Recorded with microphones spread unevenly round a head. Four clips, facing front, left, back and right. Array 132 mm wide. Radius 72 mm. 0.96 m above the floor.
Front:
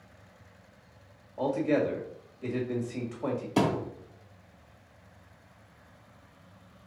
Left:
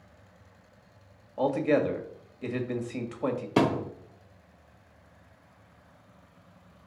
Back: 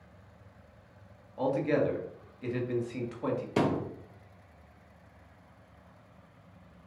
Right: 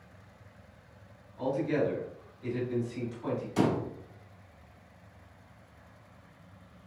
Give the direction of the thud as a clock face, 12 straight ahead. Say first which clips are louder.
Left 3 dB, front 2 dB; 9 o'clock.